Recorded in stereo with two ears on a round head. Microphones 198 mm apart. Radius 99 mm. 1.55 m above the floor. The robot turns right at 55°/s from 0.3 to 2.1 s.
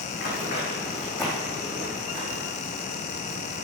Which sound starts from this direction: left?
Running footsteps, at 0.1 s.